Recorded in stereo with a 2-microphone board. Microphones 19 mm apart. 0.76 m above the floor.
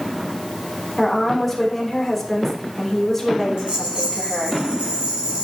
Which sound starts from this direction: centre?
A woman speaking, at 1.0 s.